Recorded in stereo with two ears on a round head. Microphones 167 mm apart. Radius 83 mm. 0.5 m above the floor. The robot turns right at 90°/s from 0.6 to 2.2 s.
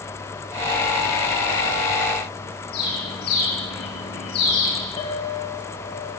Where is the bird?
55° left (ahead or behind), 7 m.